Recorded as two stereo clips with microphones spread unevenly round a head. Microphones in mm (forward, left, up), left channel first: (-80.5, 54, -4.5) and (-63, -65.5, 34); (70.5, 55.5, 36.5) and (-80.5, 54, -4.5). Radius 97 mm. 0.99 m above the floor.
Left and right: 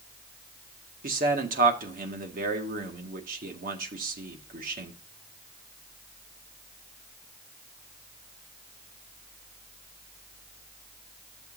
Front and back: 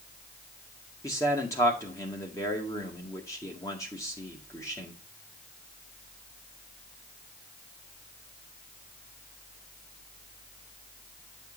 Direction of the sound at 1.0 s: 75° right.